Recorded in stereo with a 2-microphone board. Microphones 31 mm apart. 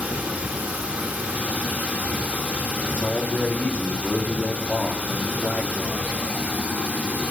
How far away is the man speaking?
About 1.6 m.